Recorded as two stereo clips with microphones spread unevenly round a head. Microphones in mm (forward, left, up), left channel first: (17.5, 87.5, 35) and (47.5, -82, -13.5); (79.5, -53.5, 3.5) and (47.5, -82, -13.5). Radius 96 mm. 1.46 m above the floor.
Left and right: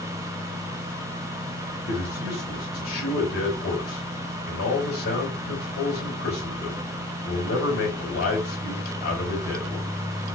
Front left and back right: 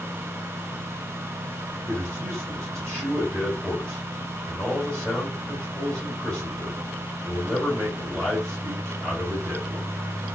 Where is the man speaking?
145° left, 3.5 m.